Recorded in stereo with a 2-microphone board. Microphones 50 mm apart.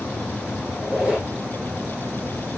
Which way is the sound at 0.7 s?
15° right (ahead or behind).